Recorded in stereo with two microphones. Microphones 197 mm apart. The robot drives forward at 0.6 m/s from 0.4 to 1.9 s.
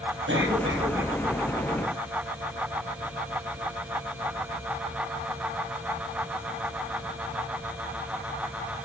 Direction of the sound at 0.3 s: 80° right.